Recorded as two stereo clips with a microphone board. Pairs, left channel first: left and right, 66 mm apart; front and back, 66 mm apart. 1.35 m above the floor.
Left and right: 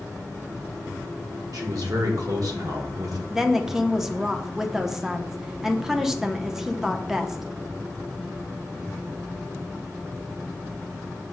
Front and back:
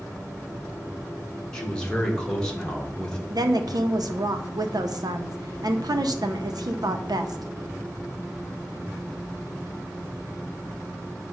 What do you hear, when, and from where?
1.5 s a man speaking: 80° right, 1.2 m
3.3 s a woman speaking: 175° right, 0.5 m